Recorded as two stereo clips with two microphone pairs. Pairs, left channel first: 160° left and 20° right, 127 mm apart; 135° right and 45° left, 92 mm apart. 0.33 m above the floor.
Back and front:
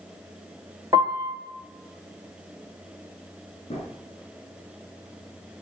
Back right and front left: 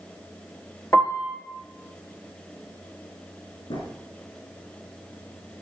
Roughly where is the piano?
Right.